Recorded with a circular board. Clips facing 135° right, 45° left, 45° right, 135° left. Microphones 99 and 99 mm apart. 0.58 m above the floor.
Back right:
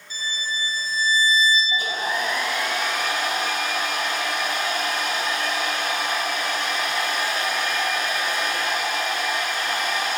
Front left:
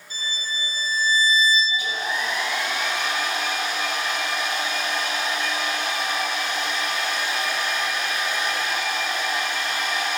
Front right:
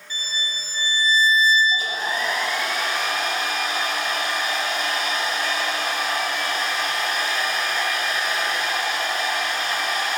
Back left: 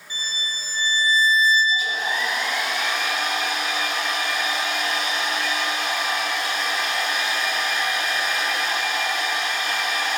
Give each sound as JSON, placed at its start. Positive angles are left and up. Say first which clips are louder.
{"t": 0.1, "sound": "a violin", "louder": "back right 2 dB, front right 1 dB", "azimuth_deg": 65, "distance_m": 2.5}
{"t": 1.7, "sound": "a hair dryer", "louder": "back right 2 dB, even", "azimuth_deg": -95, "distance_m": 3.0}